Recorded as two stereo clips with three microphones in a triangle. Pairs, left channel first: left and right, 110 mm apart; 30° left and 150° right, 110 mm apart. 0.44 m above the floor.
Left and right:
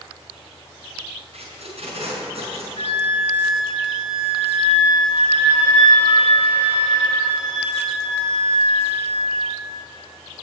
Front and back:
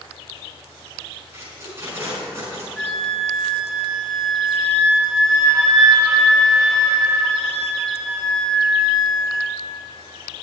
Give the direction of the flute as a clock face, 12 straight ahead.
8 o'clock.